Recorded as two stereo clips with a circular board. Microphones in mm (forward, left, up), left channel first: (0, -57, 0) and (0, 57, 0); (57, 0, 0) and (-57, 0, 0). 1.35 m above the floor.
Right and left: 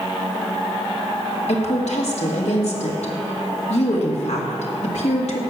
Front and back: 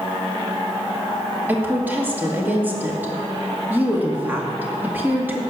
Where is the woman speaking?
105° right, 2 m.